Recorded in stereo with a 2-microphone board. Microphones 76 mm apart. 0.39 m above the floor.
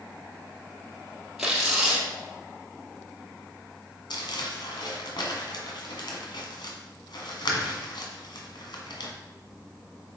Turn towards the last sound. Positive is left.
turn(degrees=80)